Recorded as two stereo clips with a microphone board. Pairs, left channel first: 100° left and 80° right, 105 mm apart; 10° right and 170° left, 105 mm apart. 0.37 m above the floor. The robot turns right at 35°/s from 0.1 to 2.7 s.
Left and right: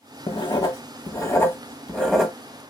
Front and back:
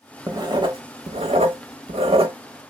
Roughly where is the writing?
Behind left.